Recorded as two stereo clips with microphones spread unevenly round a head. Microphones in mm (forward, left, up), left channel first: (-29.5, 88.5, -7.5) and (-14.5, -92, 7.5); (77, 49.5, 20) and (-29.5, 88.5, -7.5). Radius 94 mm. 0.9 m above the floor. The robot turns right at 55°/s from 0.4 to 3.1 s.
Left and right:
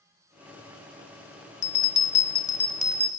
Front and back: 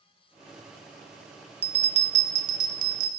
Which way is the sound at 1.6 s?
120° left.